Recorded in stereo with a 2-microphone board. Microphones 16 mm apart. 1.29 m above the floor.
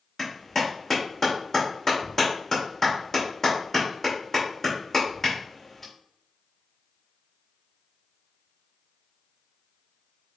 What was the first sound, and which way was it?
A clap, 25° left (ahead or behind).